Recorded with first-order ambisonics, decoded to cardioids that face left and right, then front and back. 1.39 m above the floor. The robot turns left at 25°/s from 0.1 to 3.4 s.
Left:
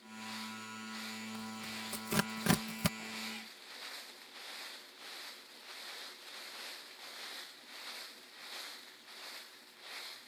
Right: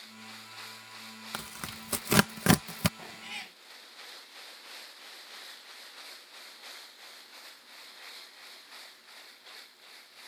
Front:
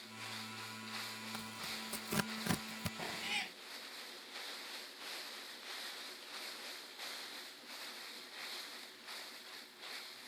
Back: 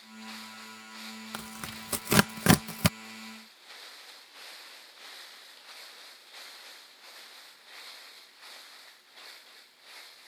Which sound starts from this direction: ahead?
A cat meowing, at 3.0 s.